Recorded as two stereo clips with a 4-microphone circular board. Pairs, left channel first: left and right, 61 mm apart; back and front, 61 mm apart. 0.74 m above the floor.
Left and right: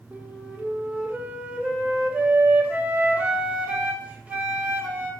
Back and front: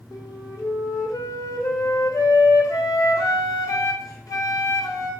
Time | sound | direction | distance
0.1 | a flute | 160° right | 1.5 m